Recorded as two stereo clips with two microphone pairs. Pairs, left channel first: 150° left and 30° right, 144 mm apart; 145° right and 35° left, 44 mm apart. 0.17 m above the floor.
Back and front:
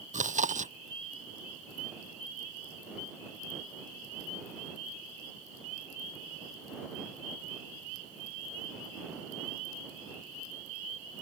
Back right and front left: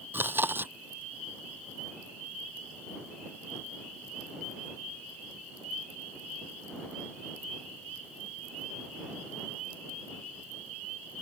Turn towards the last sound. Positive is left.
turn(degrees=0)